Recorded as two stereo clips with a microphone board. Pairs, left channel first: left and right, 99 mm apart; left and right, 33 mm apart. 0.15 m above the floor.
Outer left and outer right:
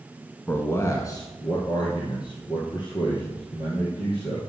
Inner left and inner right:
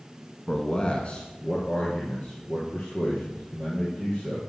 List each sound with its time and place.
0.5 s a man speaking: 20° left (ahead or behind), 1.4 m; by 4.4 s 50° left (ahead or behind), 5 m